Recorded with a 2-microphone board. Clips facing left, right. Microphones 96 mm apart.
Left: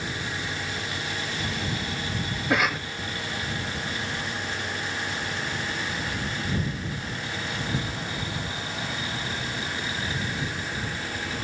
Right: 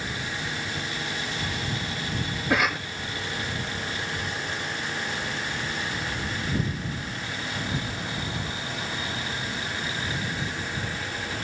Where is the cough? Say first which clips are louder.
Even; centre (ahead or behind).